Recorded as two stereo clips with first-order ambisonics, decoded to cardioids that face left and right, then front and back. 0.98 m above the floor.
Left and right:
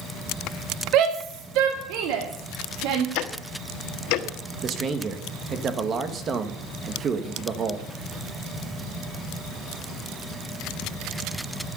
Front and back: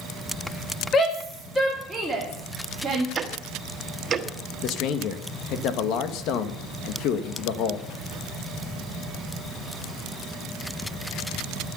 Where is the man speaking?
30° right, 1.5 m.